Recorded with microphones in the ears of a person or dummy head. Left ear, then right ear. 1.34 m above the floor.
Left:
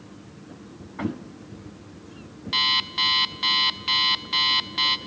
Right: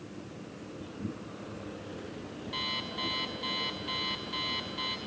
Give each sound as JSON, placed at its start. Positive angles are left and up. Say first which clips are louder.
{"t": 2.5, "sound": "an alarm clock", "louder": "left 13 dB", "side_deg": 35, "distance_m": 1.0}